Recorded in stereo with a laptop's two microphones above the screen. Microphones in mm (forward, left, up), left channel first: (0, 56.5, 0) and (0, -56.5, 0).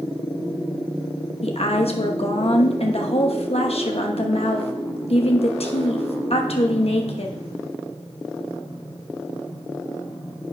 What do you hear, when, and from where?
1.4 s a woman speaking: 60° left (ahead or behind), 1.0 m